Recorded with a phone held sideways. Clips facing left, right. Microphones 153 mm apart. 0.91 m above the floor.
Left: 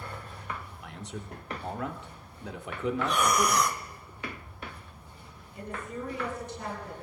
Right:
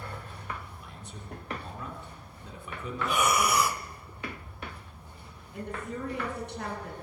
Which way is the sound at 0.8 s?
75° left (ahead or behind).